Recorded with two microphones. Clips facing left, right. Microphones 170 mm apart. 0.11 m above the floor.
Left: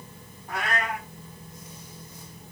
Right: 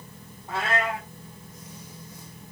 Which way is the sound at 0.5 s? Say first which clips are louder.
Right 3 dB; 25° right (ahead or behind).